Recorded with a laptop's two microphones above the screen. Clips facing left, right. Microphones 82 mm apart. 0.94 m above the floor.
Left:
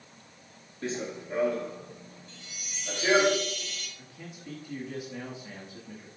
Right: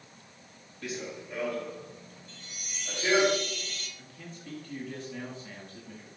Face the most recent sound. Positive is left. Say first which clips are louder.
# left 1 dB
turn(degrees=10)  # may be behind; listen again after turning